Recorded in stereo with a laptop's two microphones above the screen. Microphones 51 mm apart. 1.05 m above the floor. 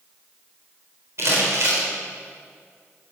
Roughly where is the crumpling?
Right.